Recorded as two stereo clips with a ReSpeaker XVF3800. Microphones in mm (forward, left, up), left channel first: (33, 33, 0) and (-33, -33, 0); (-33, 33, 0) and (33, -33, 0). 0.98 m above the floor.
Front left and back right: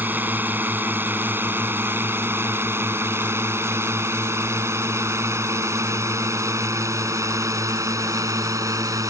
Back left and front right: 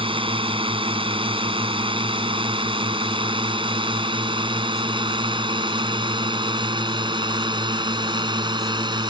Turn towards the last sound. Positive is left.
turn(degrees=-80)